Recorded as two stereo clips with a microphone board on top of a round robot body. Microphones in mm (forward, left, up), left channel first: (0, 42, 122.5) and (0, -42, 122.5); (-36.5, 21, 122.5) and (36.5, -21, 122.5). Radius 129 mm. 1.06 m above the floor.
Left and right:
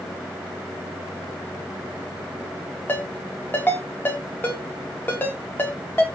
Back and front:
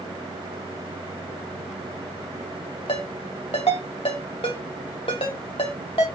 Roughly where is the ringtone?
Behind left.